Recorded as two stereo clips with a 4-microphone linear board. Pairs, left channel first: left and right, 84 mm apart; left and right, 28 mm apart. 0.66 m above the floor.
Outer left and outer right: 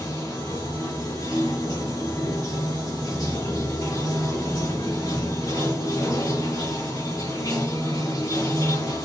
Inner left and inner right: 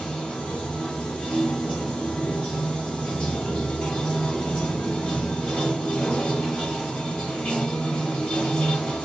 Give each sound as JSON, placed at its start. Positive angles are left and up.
{"t": 0.0, "sound": "running water", "side_deg": 45, "distance_m": 1.1}